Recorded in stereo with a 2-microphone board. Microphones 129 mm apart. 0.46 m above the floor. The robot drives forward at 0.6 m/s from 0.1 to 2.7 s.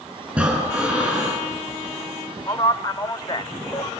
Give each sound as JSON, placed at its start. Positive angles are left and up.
{"t": 0.3, "sound": "breathing", "side_deg": -10, "distance_m": 7.0}
{"t": 2.5, "sound": "a man speaking", "side_deg": 30, "distance_m": 1.3}